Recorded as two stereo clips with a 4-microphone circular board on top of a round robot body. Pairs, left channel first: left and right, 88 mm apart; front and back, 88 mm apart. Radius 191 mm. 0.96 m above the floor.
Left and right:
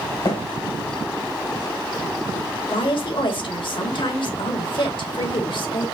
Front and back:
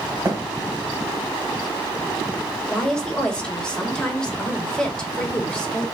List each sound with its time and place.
0.2 s a thud: 120° left, 1.3 m
2.7 s a woman speaking: 80° left, 1.6 m